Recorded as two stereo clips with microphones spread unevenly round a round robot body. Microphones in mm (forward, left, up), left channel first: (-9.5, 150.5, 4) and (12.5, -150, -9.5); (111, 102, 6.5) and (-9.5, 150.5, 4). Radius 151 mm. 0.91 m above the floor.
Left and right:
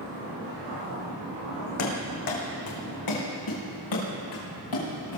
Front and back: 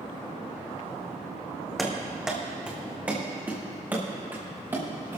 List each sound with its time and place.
1.8 s running footsteps: 65° left, 2.5 m; by 5.2 s 90° left, 4.5 m